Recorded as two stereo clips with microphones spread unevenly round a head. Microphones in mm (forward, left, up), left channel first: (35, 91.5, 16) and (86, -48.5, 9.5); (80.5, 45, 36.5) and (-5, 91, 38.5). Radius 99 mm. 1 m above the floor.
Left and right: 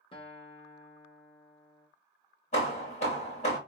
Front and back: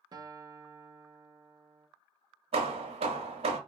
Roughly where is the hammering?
Behind.